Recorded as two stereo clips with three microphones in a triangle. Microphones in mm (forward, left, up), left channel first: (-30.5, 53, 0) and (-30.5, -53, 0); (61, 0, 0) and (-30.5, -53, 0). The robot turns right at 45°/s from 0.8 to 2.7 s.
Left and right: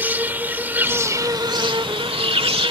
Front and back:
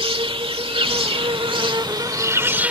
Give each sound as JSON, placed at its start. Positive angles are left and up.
{"t": 0.0, "sound": "an insect", "azimuth_deg": -160}